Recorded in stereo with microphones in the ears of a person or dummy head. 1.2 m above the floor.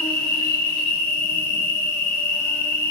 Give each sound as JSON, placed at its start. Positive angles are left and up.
{"t": 0.0, "sound": "an insect", "side_deg": 10, "distance_m": 0.8}